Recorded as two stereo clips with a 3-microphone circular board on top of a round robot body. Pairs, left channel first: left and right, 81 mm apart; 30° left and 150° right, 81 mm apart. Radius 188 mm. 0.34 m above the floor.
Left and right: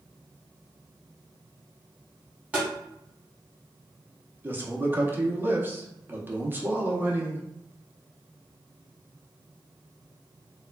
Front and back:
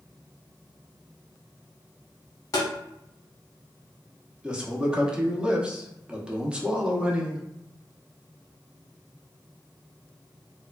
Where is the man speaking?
90° right, 0.9 m.